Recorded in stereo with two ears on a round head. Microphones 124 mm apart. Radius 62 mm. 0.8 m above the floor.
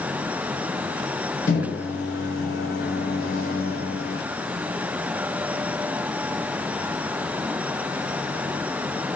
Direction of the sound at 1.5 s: 65° left (ahead or behind).